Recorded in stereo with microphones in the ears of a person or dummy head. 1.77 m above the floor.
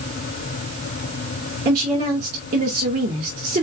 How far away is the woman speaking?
About 2.5 m.